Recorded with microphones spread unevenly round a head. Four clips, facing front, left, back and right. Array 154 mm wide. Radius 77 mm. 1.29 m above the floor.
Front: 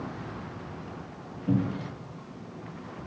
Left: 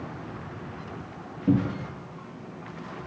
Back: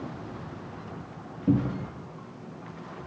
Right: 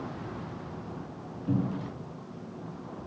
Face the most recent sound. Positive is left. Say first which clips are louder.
# left 6 dB, back 3 dB
turn(degrees=140)